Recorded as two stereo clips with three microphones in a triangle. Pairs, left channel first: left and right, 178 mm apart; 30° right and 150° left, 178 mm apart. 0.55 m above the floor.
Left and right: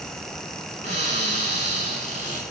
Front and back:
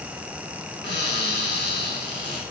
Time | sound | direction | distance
0.8 | a cupboard door | 40° right | 6.5 m